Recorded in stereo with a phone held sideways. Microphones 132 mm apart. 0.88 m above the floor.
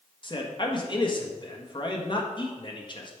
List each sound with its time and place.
0.2 s a man speaking: 35° left (ahead or behind), 1.4 m